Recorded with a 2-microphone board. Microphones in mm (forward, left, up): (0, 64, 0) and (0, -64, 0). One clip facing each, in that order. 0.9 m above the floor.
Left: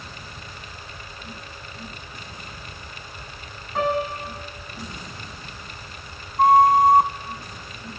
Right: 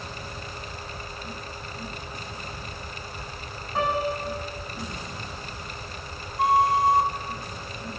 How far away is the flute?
About 0.8 m.